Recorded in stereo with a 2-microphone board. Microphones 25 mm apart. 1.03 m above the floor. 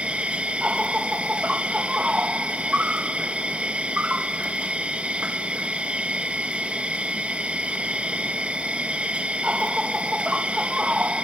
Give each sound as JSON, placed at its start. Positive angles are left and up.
{"t": 0.0, "sound": "an insect", "side_deg": -55, "distance_m": 0.8}